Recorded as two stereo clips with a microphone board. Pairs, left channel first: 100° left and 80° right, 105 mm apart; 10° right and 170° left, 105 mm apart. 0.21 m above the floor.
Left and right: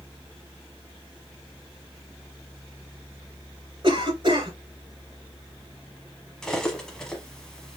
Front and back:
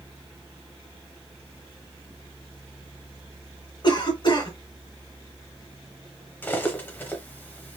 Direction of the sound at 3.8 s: 45° right.